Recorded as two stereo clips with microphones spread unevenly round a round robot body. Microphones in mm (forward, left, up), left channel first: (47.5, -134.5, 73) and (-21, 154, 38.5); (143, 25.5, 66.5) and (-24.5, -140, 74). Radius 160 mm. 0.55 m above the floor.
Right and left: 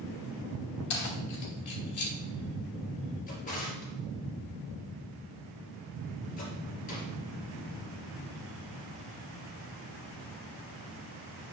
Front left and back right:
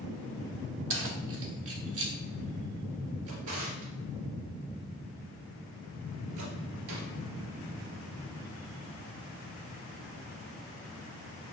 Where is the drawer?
140° right, 3 m.